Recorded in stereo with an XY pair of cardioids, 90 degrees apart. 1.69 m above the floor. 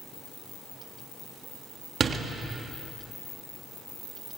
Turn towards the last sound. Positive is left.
turn(degrees=-45)